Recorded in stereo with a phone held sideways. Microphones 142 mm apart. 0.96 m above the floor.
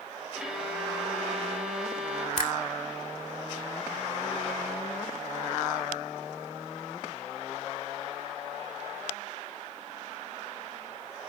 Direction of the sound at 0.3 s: 5° right (ahead or behind).